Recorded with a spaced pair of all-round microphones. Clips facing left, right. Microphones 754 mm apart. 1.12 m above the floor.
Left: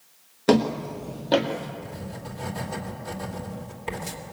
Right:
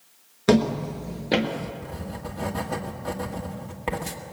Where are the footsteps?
35° right (ahead or behind), 1.3 m; by 1.7 s 55° right (ahead or behind), 1.9 m.